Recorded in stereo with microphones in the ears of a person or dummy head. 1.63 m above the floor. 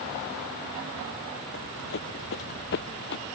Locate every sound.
1.5 s running footsteps: 65° left (ahead or behind); by 3.2 s 60° left (ahead or behind)